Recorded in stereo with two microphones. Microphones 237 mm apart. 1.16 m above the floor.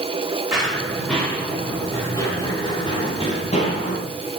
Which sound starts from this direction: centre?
Running footsteps, at 0.5 s.